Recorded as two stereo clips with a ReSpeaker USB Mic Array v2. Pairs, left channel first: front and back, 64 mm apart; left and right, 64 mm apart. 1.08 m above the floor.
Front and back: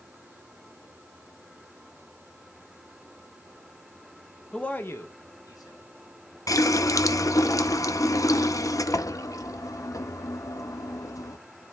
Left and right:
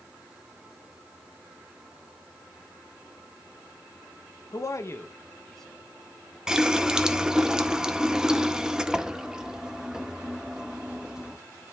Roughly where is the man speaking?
Left.